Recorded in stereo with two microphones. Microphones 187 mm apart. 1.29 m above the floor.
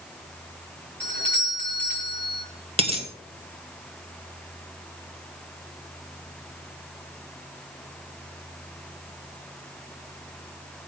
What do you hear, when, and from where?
1.0 s a doorbell: 70° right (ahead or behind), 5 m
2.8 s a dropped coin: 30° right (ahead or behind), 2 m